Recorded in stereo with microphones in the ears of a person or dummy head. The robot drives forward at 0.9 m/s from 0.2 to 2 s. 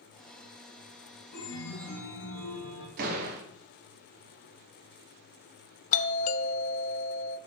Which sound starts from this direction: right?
A door slam, at 3.0 s.